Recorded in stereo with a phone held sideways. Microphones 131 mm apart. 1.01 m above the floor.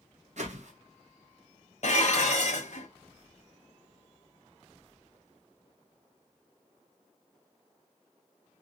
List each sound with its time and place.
0.4 s a whoosh: 65° right (ahead or behind), 0.9 m
1.8 s dishes clattering: 65° left (ahead or behind), 0.7 m